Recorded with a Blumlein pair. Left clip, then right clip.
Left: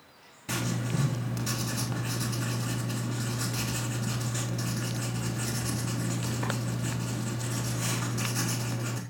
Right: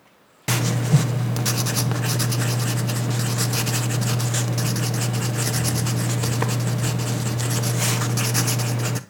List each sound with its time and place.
0.5 s writing: 45° right, 1.1 m